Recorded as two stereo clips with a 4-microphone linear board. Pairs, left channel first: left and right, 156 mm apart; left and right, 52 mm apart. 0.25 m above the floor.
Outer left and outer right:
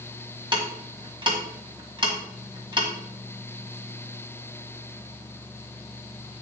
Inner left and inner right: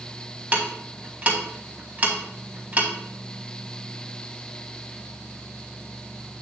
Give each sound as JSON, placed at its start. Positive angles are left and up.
{"t": 0.5, "sound": "ticking", "side_deg": -30, "distance_m": 1.5}